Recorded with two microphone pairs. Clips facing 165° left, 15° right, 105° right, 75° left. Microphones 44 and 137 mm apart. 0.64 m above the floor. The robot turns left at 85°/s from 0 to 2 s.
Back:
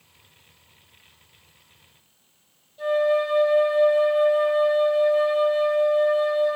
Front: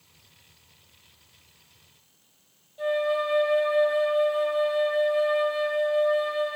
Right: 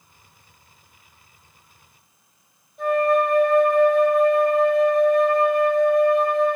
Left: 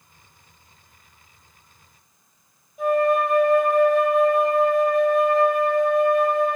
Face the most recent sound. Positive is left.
turn(degrees=0)